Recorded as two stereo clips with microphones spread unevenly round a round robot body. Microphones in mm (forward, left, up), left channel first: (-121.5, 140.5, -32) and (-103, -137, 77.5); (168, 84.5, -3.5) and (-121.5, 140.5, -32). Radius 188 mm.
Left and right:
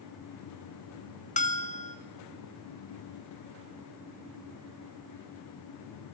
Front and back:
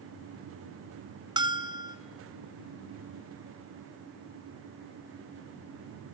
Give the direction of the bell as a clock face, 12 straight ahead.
9 o'clock.